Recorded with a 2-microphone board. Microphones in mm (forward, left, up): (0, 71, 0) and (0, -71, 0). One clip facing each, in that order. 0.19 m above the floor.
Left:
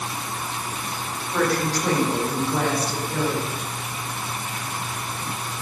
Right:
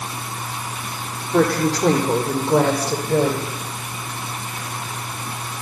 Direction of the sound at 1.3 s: 75° right (ahead or behind).